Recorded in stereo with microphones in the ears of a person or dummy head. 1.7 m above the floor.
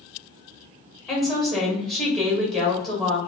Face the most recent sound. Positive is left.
turn(degrees=5)  # may be behind; listen again after turning